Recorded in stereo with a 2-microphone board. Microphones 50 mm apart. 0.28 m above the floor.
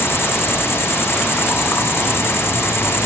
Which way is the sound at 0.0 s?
60° left (ahead or behind).